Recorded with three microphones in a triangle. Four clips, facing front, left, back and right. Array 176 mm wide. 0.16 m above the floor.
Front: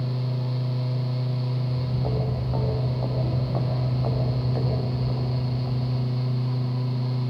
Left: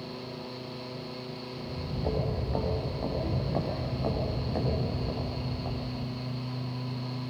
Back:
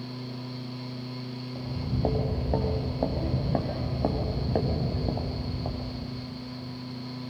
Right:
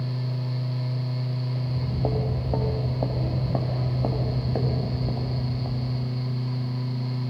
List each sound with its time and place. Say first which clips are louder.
1.6 s footsteps: right 3 dB, front 3 dB; 130° right, 4 m; by 6.2 s 165° right, 3.5 m